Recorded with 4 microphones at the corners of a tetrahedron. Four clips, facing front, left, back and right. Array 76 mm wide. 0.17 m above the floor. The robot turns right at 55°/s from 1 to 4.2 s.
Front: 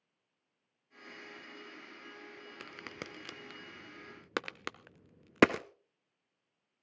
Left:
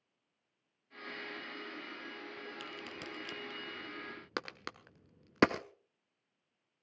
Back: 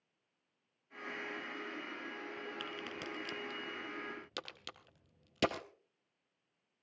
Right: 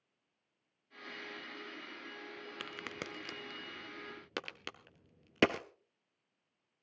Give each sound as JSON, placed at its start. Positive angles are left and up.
{"t": 2.6, "sound": "a crack", "azimuth_deg": -75, "distance_m": 1.0}